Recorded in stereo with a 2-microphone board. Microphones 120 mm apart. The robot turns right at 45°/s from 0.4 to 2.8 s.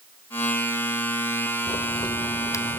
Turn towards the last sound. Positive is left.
turn(degrees=15)  # may be behind; listen again after turning